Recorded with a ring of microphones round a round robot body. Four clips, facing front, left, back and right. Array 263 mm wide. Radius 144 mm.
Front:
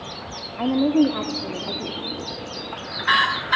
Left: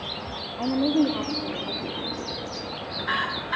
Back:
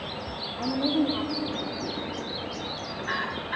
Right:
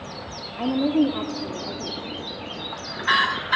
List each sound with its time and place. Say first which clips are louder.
0.6 s a woman speaking: right 2 dB, front 8 dB; 15° right, 1.5 m